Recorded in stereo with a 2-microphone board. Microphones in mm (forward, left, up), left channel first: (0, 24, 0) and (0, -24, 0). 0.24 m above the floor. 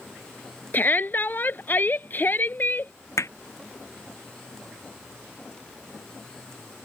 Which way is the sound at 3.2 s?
90° left.